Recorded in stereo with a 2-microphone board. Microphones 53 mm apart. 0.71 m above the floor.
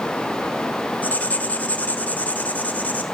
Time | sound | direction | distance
1.0 | writing | 30° left (ahead or behind) | 1.6 m